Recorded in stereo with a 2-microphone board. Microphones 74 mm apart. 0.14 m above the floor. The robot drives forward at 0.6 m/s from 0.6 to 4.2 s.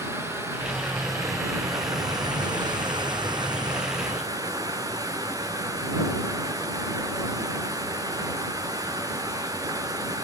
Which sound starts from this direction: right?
Running water, at 0.0 s.